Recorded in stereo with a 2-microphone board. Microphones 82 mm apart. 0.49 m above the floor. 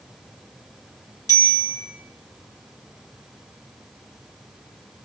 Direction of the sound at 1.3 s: 45° left (ahead or behind).